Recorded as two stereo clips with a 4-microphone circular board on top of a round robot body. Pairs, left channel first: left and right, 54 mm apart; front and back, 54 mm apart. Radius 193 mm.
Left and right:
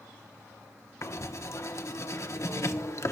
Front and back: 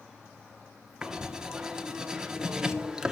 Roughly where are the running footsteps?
I don't hear running footsteps.